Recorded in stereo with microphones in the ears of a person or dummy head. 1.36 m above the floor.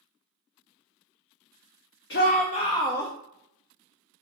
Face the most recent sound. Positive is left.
turn(degrees=10)  # may be behind; listen again after turning